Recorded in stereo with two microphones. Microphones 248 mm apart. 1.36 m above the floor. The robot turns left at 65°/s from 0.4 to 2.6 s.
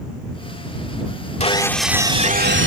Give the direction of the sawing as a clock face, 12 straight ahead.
11 o'clock.